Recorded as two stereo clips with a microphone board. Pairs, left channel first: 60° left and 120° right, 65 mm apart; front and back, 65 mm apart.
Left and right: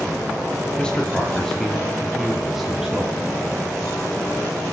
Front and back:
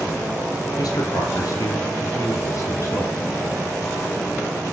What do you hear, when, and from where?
0.8 s a man speaking: 15° right, 4.5 m; by 3.2 s 35° right, 6 m